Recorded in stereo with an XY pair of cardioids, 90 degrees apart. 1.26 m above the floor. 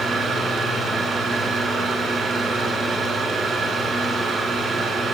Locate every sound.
0.0 s a fan: 65° right, 3.5 m